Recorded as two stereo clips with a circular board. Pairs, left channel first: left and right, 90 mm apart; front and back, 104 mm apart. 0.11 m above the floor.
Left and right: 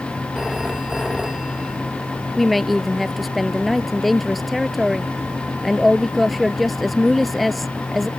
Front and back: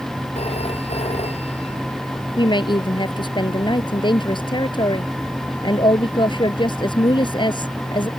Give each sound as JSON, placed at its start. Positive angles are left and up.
{"t": 0.3, "sound": "a phone ringing", "azimuth_deg": -5}
{"t": 2.4, "sound": "a woman speaking", "azimuth_deg": 0}